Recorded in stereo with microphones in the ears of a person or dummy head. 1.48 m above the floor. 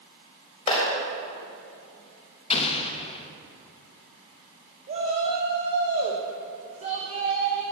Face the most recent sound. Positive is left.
turn(degrees=-35)  # may be behind; listen again after turning